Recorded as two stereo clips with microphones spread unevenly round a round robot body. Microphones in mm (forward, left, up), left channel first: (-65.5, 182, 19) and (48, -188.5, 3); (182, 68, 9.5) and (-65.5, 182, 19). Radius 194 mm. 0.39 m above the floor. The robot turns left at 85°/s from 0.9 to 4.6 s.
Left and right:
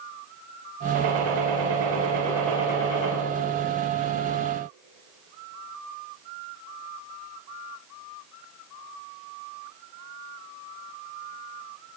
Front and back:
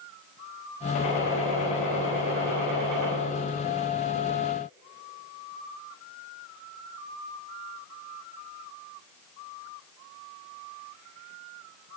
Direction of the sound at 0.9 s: 35° right.